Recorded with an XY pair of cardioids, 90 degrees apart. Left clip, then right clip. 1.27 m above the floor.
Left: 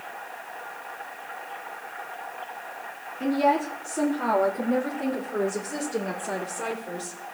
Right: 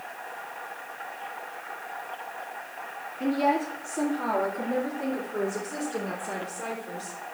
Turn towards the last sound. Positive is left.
turn(degrees=40)